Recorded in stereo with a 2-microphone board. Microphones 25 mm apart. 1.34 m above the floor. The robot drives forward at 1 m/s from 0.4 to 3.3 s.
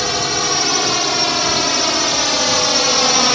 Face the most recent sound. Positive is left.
turn(degrees=5)  # may be behind; listen again after turning